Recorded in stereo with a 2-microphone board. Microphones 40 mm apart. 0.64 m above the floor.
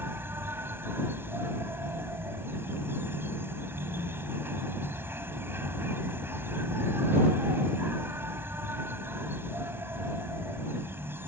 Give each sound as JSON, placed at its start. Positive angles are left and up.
{"t": 0.0, "sound": "an insect", "side_deg": -80}